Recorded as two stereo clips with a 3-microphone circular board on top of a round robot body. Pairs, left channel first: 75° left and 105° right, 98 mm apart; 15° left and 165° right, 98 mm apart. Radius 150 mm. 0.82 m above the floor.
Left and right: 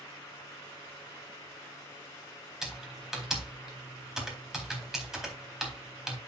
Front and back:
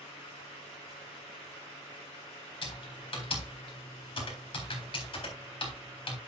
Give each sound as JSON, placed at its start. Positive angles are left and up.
{"t": 2.6, "sound": "typing on a keyboard", "azimuth_deg": -20, "distance_m": 4.0}